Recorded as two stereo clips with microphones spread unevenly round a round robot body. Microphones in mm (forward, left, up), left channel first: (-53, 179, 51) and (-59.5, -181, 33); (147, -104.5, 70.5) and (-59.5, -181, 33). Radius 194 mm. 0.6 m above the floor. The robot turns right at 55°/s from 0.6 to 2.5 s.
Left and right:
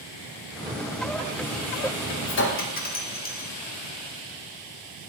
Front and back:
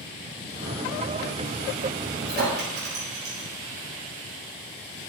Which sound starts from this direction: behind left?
A clink, at 2.3 s.